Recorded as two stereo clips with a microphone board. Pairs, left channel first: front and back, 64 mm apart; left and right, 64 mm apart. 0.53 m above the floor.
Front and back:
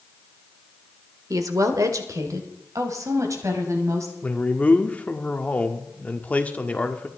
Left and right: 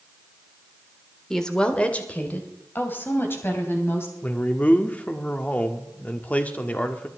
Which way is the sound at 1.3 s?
175° left.